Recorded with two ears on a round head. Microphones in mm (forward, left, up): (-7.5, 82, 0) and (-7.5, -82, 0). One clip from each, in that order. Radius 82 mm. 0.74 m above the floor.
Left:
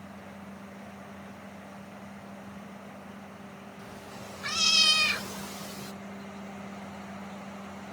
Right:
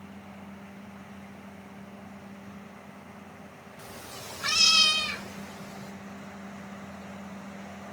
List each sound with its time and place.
3.8 s a cat meowing: 50° right (ahead or behind), 1.0 m; by 5.9 s 65° left (ahead or behind), 1.0 m